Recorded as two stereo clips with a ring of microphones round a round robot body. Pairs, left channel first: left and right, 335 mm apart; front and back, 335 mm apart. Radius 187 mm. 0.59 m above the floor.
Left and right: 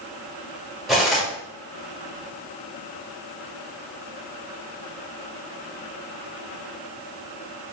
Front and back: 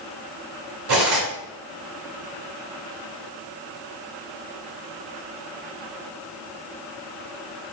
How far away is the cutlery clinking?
About 1.5 m.